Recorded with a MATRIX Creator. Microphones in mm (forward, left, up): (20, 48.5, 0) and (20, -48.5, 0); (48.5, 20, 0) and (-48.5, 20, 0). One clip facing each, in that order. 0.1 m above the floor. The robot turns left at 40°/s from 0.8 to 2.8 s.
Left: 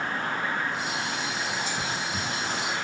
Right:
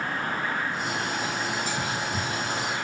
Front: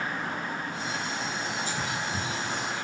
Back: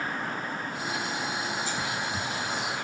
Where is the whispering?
25° right, 1.3 m; by 2.8 s 70° right, 1.3 m.